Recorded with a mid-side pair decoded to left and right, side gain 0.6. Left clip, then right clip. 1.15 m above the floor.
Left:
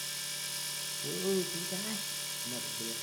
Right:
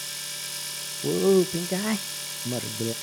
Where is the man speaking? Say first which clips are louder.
Right 13 dB; 60° right, 0.6 m.